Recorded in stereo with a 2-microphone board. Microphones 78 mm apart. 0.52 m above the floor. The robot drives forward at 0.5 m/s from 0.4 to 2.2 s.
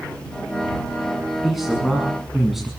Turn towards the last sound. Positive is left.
turn(degrees=0)  # may be behind; listen again after turning